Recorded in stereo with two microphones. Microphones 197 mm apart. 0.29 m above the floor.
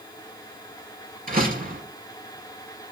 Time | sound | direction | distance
1.3 | a door slam | 45° right (ahead or behind) | 3.5 m